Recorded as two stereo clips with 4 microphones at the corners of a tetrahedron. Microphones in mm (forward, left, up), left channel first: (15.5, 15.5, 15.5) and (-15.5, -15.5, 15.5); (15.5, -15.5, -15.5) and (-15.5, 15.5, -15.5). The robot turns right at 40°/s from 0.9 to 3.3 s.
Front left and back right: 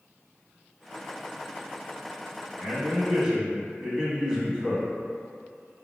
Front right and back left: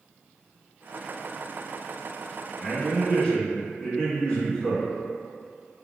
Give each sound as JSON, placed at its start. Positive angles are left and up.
{"t": 2.6, "sound": "a man speaking", "azimuth_deg": -90, "distance_m": 1.1}